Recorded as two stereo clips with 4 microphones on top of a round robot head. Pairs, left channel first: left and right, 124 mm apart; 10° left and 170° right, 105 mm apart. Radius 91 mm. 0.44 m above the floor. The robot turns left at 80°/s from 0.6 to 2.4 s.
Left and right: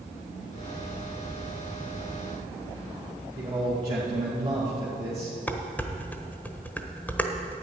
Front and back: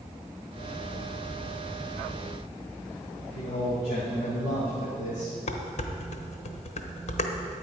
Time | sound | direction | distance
3.4 | a man speaking | 30° right | 2.5 m
5.5 | dishes clattering | 15° left | 1.1 m